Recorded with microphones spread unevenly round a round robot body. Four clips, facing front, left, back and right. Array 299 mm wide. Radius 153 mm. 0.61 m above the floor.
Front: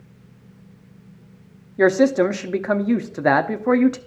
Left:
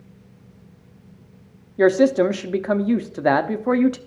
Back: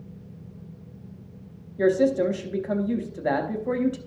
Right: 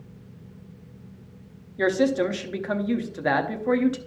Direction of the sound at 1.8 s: 25° left.